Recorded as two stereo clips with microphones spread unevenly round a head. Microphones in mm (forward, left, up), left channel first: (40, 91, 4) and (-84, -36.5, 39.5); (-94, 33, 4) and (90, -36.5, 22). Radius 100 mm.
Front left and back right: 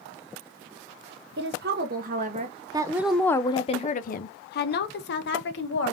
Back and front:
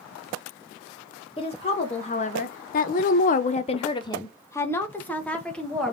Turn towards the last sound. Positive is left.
turn(degrees=70)